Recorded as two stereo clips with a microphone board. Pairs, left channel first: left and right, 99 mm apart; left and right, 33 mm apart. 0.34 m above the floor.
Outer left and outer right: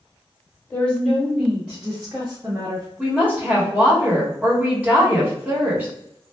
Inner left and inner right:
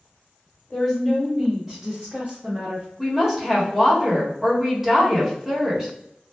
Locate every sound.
0.7 s a woman speaking: 15° left (ahead or behind), 1.0 m; by 2.9 s 30° right (ahead or behind), 2.0 m
3.0 s a woman speaking: 15° right (ahead or behind), 1.3 m